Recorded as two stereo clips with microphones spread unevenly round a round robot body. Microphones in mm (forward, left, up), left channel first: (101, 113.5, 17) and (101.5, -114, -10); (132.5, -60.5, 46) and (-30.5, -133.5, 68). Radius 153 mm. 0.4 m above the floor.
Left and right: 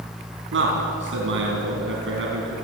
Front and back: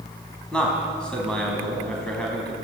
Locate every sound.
0.5 s a man speaking: 60° right, 4 m